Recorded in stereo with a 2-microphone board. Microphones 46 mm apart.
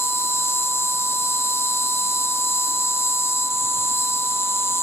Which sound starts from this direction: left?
An insect, at 0.0 s.